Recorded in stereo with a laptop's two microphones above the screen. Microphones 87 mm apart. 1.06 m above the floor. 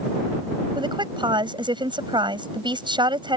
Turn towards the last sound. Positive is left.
turn(degrees=-65)  # may be behind; listen again after turning